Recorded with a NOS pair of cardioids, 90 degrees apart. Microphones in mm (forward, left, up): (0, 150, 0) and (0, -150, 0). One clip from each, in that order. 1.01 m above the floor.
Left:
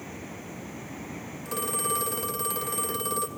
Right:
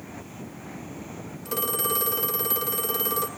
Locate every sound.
1.4 s a phone ringing: 20° right, 1.9 m